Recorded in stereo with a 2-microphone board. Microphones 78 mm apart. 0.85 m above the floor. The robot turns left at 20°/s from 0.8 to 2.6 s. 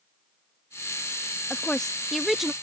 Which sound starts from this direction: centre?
A woman speaking, at 1.5 s.